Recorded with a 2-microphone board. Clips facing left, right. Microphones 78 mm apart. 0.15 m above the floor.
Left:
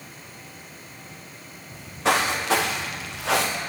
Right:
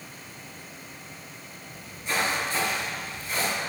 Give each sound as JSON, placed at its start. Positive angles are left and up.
{"t": 1.7, "sound": "footsteps", "side_deg": 80, "distance_m": 3.0}